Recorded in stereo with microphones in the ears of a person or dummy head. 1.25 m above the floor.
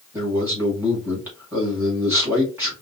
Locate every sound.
0.1 s a man speaking: 15° right (ahead or behind), 1.8 m